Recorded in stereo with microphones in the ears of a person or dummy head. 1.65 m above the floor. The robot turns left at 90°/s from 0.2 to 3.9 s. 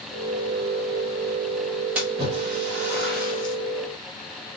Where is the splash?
5° right (ahead or behind), 1.4 m; by 3.5 s 25° right (ahead or behind), 1.4 m.